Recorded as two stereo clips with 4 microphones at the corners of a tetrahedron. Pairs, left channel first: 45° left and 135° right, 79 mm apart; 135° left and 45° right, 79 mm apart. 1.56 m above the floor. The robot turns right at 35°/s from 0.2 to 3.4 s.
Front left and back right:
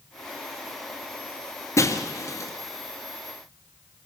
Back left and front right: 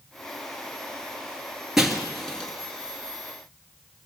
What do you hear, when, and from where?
1.8 s breaking glass: 35° left, 1.9 m; by 2.5 s 60° left, 1.9 m